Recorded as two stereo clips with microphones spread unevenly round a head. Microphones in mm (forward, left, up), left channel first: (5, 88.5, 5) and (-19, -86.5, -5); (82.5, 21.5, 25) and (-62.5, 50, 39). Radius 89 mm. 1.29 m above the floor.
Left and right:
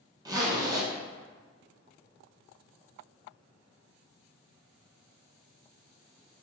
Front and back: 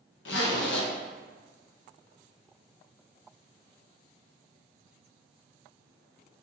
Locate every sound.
0.2 s a zipper: 25° right, 0.8 m